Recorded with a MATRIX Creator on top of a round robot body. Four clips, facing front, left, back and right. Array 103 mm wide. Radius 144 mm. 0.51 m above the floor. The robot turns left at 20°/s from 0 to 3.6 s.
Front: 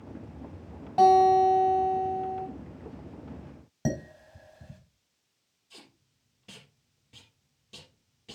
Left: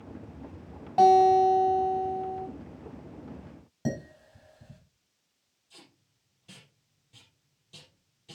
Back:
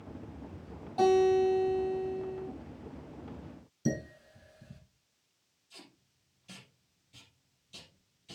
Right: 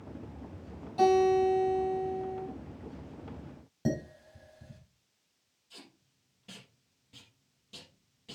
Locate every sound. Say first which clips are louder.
1.0 s a guitar: left 5 dB, front 6 dB; 45° left, 4 m; by 2.5 s 15° left, 4 m
3.9 s dishes clattering: right 1 dB, front 1 dB; straight ahead, 3 m
5.7 s tape being pulled: right 2 dB, front 1 dB; 20° right, 4 m